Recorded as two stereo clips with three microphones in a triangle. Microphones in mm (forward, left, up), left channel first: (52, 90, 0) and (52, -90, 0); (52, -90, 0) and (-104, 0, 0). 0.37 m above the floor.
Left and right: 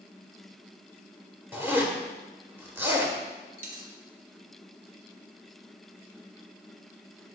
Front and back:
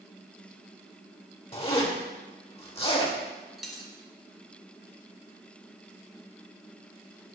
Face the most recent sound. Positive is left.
turn(degrees=-120)